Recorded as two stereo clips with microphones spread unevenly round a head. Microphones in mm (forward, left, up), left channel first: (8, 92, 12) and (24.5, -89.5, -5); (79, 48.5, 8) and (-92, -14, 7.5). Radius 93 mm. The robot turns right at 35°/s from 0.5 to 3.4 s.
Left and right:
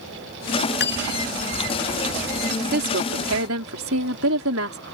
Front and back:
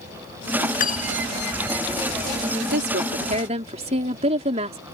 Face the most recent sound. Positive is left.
turn(degrees=-100)